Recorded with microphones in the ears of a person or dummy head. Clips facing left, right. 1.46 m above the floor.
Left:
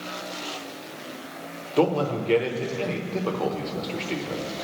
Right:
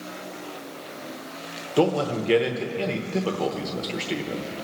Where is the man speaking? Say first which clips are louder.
Even; 10° right (ahead or behind), 1.0 m.